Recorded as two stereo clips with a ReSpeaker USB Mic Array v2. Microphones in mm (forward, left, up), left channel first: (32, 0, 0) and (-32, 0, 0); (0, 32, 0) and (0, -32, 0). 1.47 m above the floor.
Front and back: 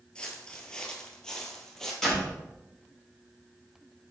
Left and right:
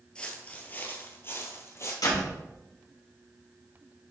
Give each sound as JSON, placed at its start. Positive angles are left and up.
{"t": 0.1, "sound": "footsteps", "azimuth_deg": 40, "distance_m": 1.5}
{"t": 2.0, "sound": "a door slam", "azimuth_deg": 85, "distance_m": 3.5}